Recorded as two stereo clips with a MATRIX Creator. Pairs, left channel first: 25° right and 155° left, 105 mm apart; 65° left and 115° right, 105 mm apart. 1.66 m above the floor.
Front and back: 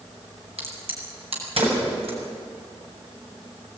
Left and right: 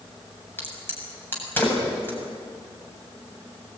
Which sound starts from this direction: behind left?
A crack, at 0.6 s.